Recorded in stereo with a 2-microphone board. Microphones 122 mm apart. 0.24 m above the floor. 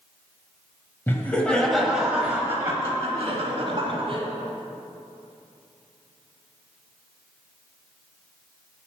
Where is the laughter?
15° left (ahead or behind), 1.4 m; by 4.2 s 45° right (ahead or behind), 2.0 m.